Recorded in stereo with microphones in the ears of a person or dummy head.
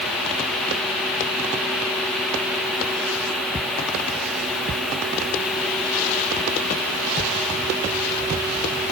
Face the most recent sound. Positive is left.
No sound to turn to.